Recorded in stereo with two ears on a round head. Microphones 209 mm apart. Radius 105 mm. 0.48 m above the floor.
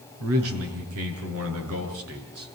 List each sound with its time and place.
0.2 s a man speaking: 70° right (ahead or behind), 7 m